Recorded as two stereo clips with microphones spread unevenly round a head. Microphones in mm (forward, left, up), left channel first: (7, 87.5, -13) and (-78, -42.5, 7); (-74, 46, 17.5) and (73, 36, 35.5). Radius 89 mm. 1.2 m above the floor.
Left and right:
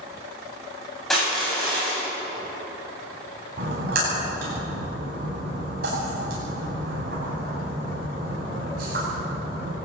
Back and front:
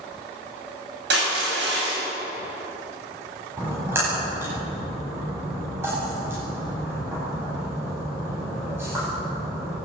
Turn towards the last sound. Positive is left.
turn(degrees=-80)